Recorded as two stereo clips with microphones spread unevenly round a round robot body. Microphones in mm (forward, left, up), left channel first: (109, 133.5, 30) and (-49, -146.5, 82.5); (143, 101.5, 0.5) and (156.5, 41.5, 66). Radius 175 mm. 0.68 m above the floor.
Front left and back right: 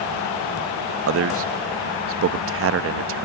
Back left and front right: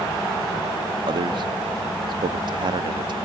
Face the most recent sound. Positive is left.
turn(degrees=-150)